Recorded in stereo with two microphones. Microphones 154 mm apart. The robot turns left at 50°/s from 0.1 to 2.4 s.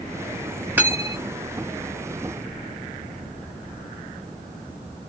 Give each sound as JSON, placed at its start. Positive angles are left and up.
{"t": 0.8, "sound": "cutlery clinking", "side_deg": -10, "distance_m": 1.4}